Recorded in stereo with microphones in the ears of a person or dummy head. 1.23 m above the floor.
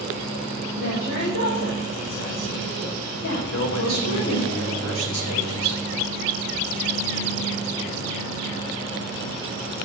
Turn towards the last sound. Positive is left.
turn(degrees=60)  # may be behind; listen again after turning